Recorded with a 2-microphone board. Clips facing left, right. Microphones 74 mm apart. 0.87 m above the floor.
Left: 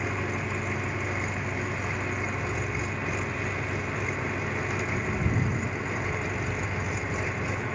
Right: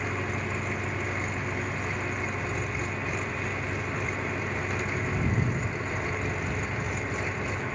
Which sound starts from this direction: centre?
An engine running, at 0.0 s.